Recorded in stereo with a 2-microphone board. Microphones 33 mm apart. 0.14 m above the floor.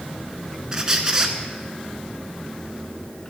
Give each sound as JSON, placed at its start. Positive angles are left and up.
{"t": 0.7, "sound": "a squeak", "side_deg": -20, "distance_m": 1.0}